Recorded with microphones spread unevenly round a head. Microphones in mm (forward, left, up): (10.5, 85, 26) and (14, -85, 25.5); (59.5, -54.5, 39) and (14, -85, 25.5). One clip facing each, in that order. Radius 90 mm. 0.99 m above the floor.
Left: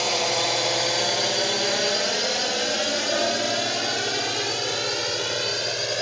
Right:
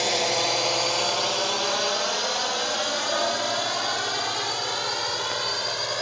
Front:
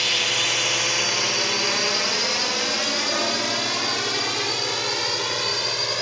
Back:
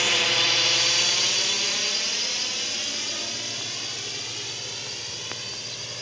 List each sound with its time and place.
0.0 s a drone: 160° right; by 6.0 s 30° left